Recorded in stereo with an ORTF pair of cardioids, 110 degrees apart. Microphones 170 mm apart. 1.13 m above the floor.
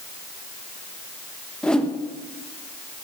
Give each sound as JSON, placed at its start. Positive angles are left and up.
{"t": 1.6, "sound": "a whoosh", "azimuth_deg": 5, "distance_m": 1.0}